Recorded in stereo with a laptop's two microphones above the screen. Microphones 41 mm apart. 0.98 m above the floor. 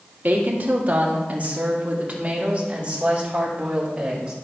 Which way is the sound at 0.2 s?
45° right (ahead or behind).